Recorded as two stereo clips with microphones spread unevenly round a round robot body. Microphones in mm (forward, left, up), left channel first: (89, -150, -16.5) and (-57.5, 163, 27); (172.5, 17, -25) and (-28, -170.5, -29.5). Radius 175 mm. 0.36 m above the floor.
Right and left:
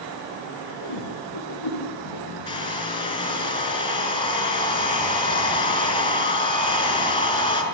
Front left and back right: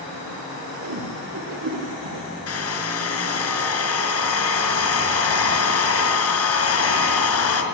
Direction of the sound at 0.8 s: 100° right.